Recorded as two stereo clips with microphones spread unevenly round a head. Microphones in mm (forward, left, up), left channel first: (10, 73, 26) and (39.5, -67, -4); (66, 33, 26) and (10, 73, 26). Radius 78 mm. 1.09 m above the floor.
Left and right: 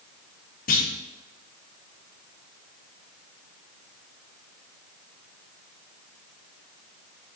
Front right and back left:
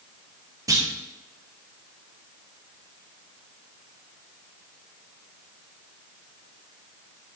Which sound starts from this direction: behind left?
A clunk, at 0.7 s.